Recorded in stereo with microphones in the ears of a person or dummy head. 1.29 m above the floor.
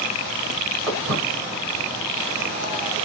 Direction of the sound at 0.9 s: 25° right (ahead or behind).